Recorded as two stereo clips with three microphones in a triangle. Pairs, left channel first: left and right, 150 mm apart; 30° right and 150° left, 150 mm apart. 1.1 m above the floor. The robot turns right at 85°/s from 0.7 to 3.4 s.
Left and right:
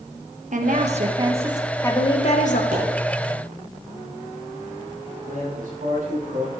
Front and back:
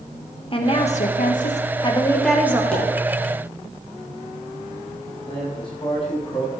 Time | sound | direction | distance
0.5 | a woman speaking | 80° right | 1.1 m
2.7 | a pop | 115° right | 4.5 m
5.3 | a man speaking | 85° right | 5.5 m